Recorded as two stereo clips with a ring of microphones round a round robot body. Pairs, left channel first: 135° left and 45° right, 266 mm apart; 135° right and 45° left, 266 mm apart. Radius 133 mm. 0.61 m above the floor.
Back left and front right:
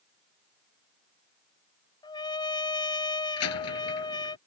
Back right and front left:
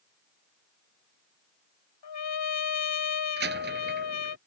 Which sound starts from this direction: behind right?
A trumpet, at 2.0 s.